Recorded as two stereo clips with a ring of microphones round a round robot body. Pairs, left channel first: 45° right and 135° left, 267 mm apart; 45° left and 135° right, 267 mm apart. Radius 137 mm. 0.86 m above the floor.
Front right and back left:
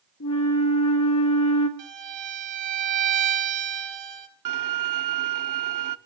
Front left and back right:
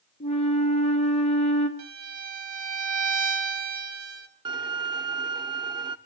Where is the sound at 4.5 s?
150° left, 0.7 m.